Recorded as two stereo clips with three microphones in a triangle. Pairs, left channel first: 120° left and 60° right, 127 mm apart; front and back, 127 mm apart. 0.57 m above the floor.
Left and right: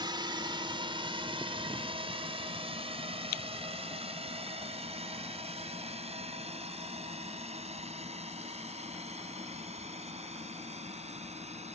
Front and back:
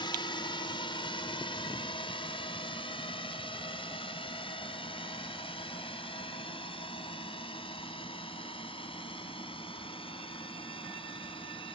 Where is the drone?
25° right; by 11.8 s 40° right.